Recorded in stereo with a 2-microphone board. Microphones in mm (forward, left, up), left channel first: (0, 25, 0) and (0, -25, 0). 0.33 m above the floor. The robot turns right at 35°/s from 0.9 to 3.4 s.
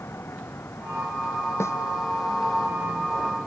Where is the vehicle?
55° left; by 3.5 s 140° left.